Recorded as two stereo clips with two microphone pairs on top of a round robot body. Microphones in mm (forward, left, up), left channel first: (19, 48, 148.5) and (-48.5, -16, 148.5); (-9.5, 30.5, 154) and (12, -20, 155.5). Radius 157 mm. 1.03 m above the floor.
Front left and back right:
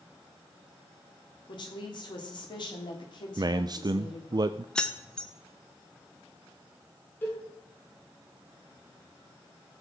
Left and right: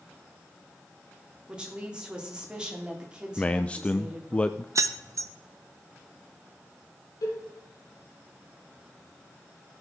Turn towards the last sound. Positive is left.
turn(degrees=115)